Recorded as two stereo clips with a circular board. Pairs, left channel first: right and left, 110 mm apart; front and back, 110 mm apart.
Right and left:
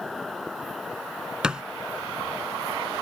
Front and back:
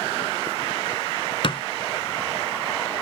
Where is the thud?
10° left.